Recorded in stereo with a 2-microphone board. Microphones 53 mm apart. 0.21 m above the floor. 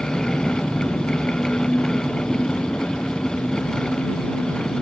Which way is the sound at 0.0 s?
20° left (ahead or behind).